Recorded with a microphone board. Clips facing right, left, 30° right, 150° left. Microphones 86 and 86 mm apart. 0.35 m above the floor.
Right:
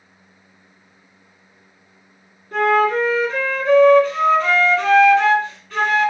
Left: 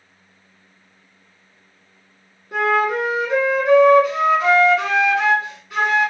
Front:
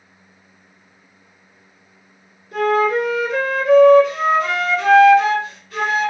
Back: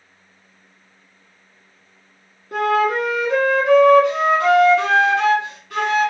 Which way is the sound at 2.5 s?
165° left.